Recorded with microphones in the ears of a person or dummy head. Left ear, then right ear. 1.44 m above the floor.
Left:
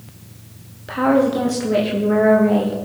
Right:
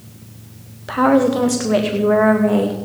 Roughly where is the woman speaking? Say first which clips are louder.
Right 2 dB; right.